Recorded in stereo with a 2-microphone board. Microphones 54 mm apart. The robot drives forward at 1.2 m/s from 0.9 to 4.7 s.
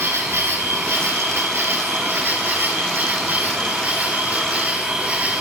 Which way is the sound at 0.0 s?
60° right (ahead or behind).